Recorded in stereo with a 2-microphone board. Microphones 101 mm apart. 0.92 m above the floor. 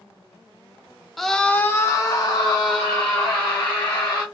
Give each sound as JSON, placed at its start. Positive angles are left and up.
{"t": 1.2, "sound": "a scream", "side_deg": 0, "distance_m": 0.5}